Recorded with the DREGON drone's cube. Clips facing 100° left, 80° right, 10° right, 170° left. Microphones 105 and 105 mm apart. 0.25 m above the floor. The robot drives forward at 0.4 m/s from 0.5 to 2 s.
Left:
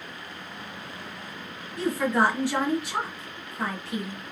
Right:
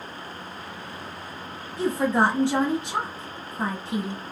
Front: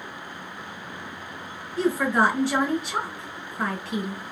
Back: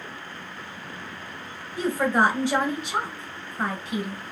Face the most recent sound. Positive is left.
turn(degrees=-130)